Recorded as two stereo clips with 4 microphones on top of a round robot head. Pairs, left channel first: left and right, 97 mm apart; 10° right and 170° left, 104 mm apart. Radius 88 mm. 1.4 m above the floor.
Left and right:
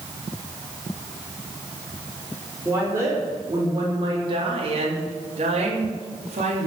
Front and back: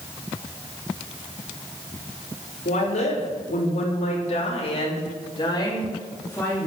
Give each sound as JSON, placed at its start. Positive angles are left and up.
{"t": 2.6, "sound": "a woman speaking", "azimuth_deg": -20, "distance_m": 4.5}